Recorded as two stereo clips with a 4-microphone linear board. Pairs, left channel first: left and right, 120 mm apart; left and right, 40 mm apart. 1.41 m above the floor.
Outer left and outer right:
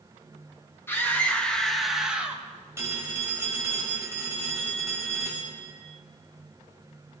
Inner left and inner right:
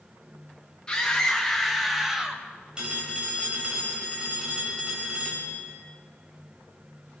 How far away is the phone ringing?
About 4.5 m.